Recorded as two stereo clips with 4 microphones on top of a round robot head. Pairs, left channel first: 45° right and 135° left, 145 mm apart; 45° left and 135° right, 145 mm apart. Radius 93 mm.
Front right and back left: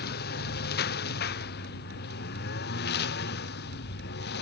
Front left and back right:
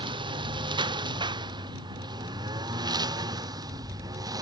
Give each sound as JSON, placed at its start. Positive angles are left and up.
{"t": 0.0, "sound": "a lawn mower", "azimuth_deg": -75}